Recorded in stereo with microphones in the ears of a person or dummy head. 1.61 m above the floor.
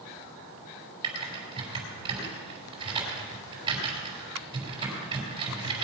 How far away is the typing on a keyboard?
About 5 m.